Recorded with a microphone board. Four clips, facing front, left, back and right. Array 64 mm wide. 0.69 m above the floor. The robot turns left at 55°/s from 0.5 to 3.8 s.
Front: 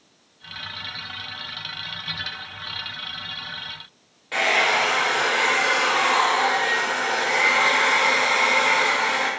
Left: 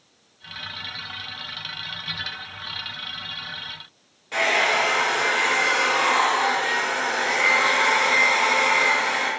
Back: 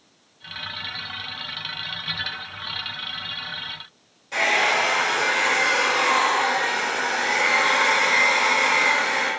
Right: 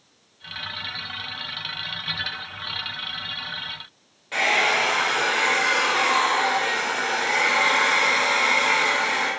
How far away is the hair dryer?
About 1.1 m.